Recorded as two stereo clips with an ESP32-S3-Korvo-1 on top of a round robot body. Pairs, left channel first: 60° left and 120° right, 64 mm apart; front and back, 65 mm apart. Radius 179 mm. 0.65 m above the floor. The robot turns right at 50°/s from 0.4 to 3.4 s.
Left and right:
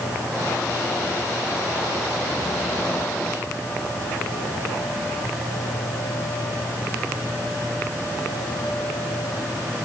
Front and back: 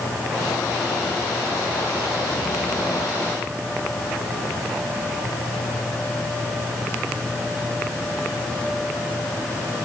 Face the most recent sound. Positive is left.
No sound to turn to.